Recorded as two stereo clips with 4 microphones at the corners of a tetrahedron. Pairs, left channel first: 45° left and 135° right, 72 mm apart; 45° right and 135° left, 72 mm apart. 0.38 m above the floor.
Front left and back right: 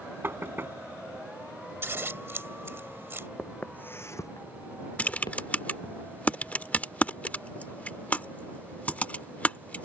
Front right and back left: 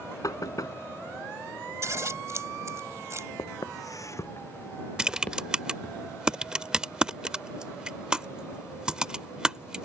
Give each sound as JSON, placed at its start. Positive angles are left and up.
{"t": 0.2, "sound": "knocking", "azimuth_deg": -75}
{"t": 1.8, "sound": "scissors", "azimuth_deg": 175}
{"t": 3.4, "sound": "footsteps", "azimuth_deg": -35}
{"t": 5.0, "sound": "typing on a keyboard", "azimuth_deg": 75}